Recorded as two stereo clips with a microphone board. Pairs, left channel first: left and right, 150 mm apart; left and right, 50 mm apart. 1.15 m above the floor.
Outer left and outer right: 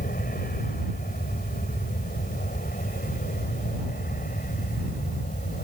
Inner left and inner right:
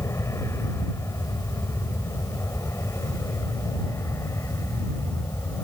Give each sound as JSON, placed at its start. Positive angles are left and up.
{"t": 0.0, "sound": "an aircraft", "side_deg": 75}